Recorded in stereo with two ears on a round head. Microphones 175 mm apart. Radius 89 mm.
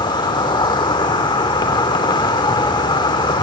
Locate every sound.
0.0 s an insect: 25° left (ahead or behind), 1.0 m